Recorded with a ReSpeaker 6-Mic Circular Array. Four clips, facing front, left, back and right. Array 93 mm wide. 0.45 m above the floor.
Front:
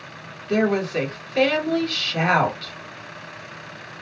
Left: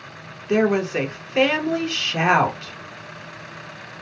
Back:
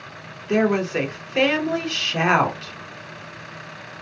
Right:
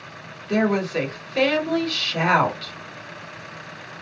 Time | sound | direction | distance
0.5 | a woman speaking | 130° left | 1.0 m